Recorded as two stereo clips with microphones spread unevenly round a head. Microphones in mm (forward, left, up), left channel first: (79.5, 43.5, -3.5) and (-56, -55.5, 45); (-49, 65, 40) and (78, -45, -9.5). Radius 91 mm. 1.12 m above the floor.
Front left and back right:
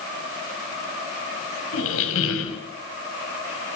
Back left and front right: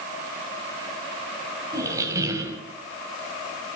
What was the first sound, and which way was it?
A squeak, 35° left.